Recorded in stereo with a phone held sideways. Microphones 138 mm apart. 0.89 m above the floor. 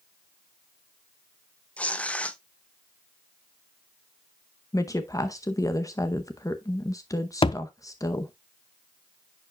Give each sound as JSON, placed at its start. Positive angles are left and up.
{"t": 1.8, "sound": "tearing paper", "side_deg": 10, "distance_m": 0.5}
{"t": 4.7, "sound": "a woman speaking", "side_deg": 25, "distance_m": 0.7}
{"t": 7.4, "sound": "a thud", "side_deg": 45, "distance_m": 0.5}